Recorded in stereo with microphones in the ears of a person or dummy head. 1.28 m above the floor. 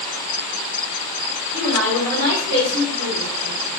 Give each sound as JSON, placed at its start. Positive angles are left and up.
{"t": 1.5, "sound": "a woman speaking", "side_deg": -70, "distance_m": 1.4}